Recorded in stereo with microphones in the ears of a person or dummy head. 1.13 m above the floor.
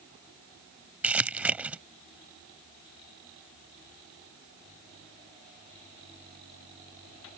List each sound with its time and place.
1.0 s crumpling: 5° right (ahead or behind)